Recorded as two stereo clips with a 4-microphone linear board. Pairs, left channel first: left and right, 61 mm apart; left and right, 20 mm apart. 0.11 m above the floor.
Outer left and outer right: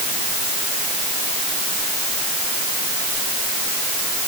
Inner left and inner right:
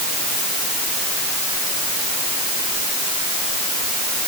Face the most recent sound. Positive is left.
No sound to turn to.